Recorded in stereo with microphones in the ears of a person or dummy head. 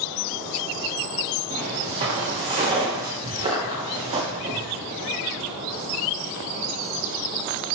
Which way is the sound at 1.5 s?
50° right (ahead or behind).